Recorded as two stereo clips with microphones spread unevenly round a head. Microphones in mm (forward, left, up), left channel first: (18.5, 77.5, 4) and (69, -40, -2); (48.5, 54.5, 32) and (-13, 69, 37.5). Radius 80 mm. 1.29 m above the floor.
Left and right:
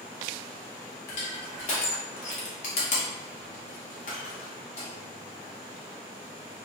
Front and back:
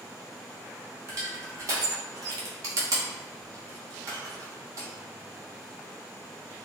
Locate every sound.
1.1 s crushing: 140° left, 0.7 m